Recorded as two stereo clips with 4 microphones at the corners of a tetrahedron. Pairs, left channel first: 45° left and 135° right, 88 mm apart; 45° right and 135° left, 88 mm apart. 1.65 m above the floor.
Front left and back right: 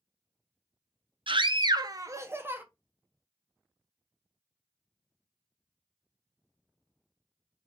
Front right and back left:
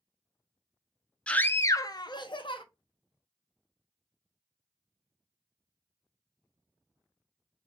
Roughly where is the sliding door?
No sliding door in this recording.